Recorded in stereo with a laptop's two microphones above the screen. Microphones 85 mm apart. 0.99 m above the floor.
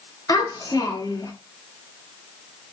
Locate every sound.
0.3 s a child speaking: 50° left (ahead or behind), 1.0 m